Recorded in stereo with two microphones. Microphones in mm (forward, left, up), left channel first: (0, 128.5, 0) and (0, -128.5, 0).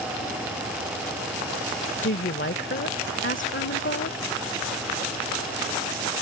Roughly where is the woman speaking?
Left.